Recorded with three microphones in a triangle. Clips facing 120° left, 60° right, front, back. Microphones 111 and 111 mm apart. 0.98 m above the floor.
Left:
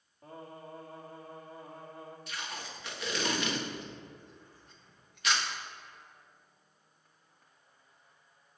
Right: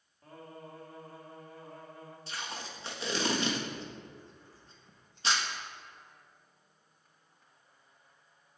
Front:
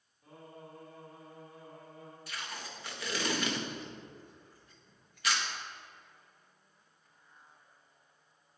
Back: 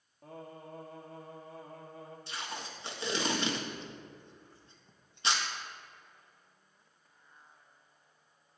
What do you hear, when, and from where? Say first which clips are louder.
0.2 s singing: left 2 dB, back 4 dB; 175° right, 1.8 m
2.3 s tape being pulled: right 2 dB, back 2 dB; 120° right, 1.3 m